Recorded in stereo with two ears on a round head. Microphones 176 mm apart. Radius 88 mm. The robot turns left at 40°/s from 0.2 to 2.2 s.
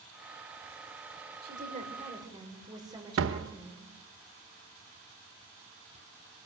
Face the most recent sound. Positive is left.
turn(degrees=-70)  # may be behind; listen again after turning